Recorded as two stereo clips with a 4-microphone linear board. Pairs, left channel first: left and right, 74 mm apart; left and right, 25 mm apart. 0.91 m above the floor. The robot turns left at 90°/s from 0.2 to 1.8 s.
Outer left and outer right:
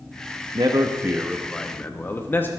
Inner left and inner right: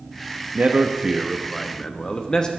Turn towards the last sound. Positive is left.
turn(degrees=150)